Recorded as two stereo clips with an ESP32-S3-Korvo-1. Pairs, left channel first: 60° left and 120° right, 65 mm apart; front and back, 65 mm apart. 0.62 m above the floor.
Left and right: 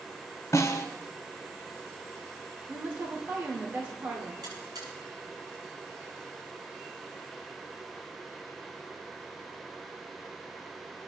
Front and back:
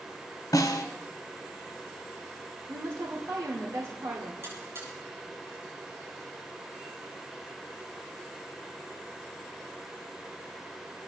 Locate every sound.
0.5 s a snare drum: 20° left, 1.5 m
2.7 s a woman speaking: 170° right, 1.8 m
4.4 s a buzzer: 130° right, 7 m